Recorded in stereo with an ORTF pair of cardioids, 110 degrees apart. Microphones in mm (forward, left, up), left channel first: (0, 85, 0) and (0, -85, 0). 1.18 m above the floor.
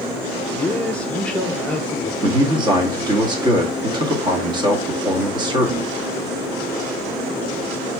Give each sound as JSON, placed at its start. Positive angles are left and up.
{"t": 0.5, "sound": "a man speaking", "azimuth_deg": 5, "distance_m": 1.1}
{"t": 2.2, "sound": "a man speaking", "azimuth_deg": -25, "distance_m": 1.5}